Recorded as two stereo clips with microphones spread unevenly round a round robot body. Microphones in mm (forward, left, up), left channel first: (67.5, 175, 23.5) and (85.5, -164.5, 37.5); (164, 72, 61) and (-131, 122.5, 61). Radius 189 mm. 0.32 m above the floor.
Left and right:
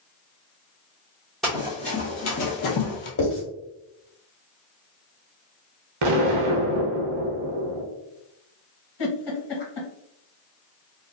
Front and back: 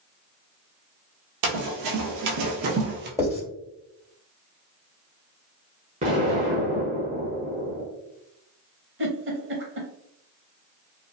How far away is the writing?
About 1.8 m.